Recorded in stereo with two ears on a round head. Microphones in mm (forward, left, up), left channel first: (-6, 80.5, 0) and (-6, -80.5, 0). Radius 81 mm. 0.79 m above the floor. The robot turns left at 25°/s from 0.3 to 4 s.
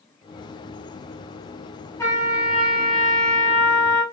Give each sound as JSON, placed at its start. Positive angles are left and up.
{"t": 2.0, "sound": "a trumpet", "azimuth_deg": 165, "distance_m": 1.0}